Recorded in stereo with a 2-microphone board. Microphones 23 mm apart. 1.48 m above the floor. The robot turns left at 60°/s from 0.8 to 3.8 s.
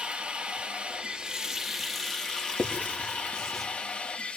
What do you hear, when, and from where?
0.0 s running water: 120° right, 2.0 m; by 4.4 s 60° left, 2.0 m
2.6 s writing: 80° left, 3 m; by 3.6 s 20° left (ahead or behind), 3 m